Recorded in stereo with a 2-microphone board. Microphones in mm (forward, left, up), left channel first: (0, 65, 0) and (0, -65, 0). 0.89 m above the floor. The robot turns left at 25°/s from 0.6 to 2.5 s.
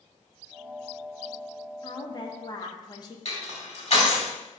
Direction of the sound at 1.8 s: 35° left (ahead or behind).